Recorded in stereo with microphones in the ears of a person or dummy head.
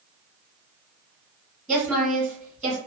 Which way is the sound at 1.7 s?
5° left (ahead or behind).